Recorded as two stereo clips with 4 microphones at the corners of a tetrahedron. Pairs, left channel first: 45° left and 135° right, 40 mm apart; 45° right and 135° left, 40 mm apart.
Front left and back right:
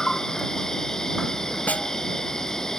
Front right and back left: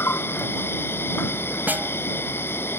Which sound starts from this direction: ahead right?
An insect, at 0.0 s.